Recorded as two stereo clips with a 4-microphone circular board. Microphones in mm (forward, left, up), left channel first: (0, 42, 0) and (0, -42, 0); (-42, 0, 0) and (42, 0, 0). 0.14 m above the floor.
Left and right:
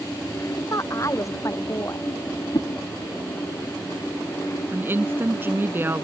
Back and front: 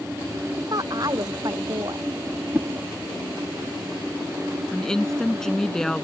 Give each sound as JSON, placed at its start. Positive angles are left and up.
{"t": 0.6, "sound": "a woman speaking", "azimuth_deg": 40}
{"t": 2.5, "sound": "a whoosh", "azimuth_deg": 65}
{"t": 4.7, "sound": "a woman speaking", "azimuth_deg": -105}